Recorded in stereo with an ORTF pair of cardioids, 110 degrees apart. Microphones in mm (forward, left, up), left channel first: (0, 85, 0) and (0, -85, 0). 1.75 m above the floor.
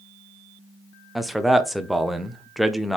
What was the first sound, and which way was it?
A man speaking, straight ahead.